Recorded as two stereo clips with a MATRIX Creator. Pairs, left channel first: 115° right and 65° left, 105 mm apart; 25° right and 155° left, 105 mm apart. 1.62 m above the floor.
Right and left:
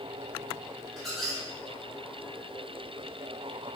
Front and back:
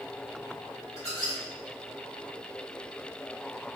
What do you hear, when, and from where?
1.0 s a squeak: 30° right, 1.3 m